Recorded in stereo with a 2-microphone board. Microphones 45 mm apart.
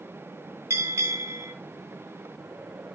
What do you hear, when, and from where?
0.7 s a bell: 80° right, 3.5 m